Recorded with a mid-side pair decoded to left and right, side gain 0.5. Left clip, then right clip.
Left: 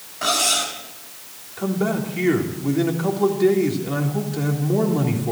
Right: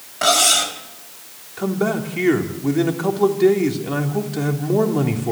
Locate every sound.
0.2 s cutlery clinking: 45° right, 4 m
1.6 s a man speaking: 25° right, 3.5 m